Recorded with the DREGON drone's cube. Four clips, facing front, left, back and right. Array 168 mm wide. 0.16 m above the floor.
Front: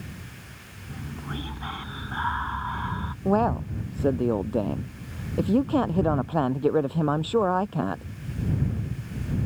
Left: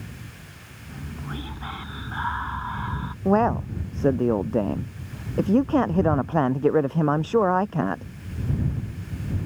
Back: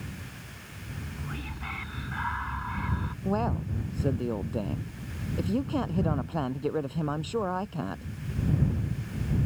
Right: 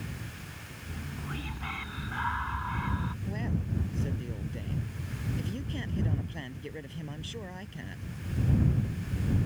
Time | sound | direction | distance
0.9 | whispering | 40° left | ?
3.2 | a man speaking | 65° left | ?